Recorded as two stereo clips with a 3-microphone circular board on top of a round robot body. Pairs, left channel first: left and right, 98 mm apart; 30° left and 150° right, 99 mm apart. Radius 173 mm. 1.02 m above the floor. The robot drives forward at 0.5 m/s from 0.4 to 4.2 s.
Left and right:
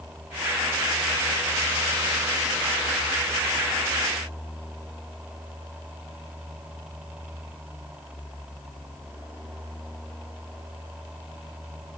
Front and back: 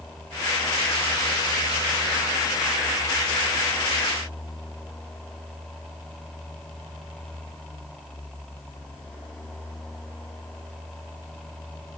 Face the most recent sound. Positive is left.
No sound to turn to.